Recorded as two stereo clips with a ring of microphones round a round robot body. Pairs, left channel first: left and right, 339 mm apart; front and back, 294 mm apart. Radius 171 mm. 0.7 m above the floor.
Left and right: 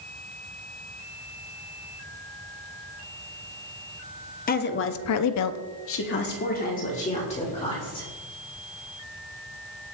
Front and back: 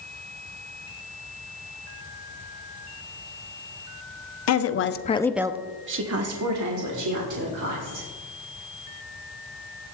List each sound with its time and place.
4.5 s a woman speaking: 25° left, 1.1 m; by 8.1 s 165° left, 3 m